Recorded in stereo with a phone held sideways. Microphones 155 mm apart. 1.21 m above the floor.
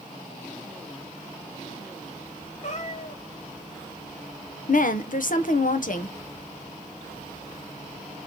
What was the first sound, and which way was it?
A cat meowing, 55° left (ahead or behind).